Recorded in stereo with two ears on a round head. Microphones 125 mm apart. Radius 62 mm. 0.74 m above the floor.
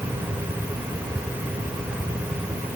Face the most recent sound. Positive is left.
No sound to turn to.